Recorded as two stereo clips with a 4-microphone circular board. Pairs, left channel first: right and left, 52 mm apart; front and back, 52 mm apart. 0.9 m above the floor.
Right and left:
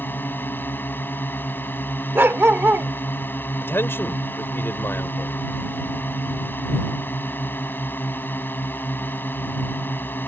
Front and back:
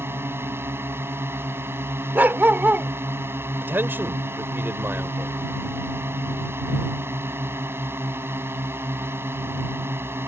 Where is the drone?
140° right.